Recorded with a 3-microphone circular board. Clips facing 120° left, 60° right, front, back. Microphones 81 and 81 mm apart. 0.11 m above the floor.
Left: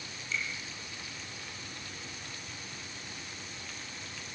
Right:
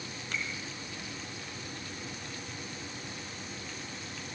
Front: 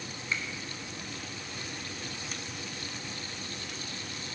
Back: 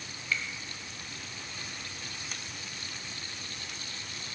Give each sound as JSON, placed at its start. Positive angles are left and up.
{"t": 0.3, "sound": "a finger snap", "azimuth_deg": -65, "distance_m": 2.5}